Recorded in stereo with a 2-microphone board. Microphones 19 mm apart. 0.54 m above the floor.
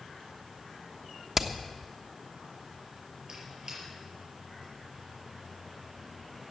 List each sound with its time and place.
1.4 s hammering: 20° right (ahead or behind), 1.0 m
3.3 s a squeak: 40° right (ahead or behind), 5.5 m